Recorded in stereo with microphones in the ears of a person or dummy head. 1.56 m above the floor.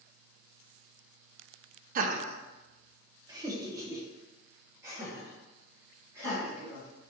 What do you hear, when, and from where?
1.9 s laughter: 45° right (ahead or behind), 0.5 m; by 7.1 s 10° right (ahead or behind), 3.5 m